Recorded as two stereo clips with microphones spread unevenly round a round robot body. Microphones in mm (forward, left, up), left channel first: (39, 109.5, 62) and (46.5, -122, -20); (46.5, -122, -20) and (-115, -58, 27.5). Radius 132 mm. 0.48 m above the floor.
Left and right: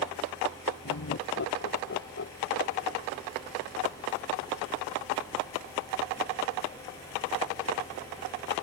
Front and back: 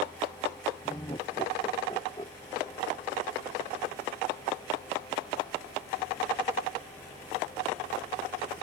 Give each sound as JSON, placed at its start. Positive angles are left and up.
{"t": 0.8, "sound": "laughter", "azimuth_deg": 55}